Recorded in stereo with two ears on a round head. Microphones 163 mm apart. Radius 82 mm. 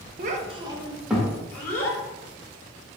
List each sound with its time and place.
0.2 s a child speaking: 45° right (ahead or behind), 0.5 m; by 2.0 s 15° left (ahead or behind), 1.2 m